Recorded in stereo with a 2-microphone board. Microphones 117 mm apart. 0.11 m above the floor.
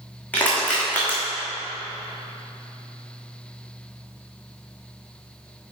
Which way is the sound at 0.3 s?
10° left (ahead or behind).